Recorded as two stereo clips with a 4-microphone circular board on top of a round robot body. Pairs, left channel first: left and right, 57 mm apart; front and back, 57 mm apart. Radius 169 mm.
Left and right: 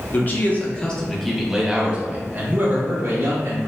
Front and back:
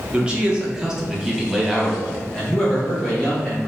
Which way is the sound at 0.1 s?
115° left.